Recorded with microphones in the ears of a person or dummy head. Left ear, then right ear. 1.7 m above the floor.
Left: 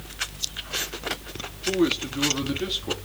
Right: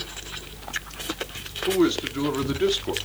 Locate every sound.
1.7 s a man speaking: 20° right (ahead or behind), 2.5 m